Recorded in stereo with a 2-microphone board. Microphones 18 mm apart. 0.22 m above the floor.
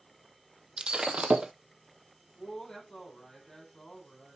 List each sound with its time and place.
0.8 s breaking glass: 65° right (ahead or behind), 0.8 m
2.4 s a woman speaking: 30° left (ahead or behind), 6.5 m